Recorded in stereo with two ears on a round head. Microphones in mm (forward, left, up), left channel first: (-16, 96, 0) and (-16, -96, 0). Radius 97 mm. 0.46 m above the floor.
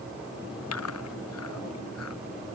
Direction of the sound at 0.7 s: 85° left.